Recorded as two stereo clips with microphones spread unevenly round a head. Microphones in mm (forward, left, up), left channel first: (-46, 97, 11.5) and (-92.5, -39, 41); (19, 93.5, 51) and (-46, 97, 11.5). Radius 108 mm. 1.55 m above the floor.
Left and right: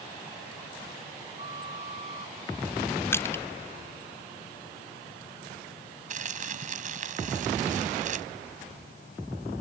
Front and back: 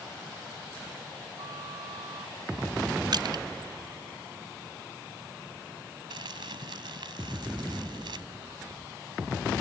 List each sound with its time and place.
1.4 s a flute: 150° right
3.1 s crushing: 150° left
6.1 s crumpling: 135° right